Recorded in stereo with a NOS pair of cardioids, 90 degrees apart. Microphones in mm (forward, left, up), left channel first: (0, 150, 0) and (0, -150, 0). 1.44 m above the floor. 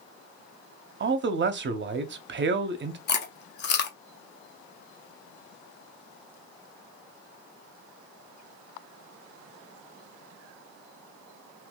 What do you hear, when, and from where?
1.0 s a man speaking: 35° right, 0.6 m
3.1 s chewing: 35° left, 0.6 m